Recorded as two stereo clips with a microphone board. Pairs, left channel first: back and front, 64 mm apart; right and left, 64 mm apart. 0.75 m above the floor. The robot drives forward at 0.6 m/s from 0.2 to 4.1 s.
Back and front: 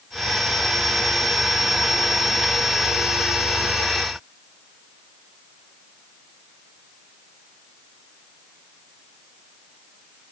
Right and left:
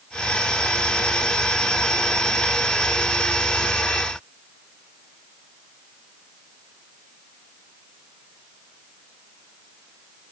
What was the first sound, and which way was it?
Only background noise.